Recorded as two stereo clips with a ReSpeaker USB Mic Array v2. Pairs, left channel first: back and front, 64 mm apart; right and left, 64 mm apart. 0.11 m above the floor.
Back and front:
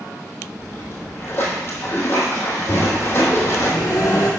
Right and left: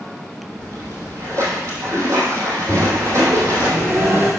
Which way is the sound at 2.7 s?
150° left.